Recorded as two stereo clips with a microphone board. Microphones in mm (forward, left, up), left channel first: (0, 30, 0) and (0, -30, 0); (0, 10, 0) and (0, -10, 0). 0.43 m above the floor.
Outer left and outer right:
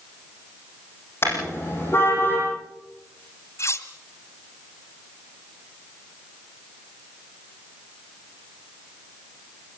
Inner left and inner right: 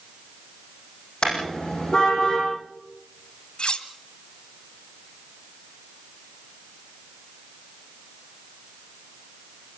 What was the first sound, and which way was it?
A car horn, 40° left (ahead or behind).